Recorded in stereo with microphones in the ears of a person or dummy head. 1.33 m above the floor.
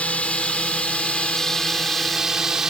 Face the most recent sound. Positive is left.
turn(degrees=0)  # may be behind; listen again after turning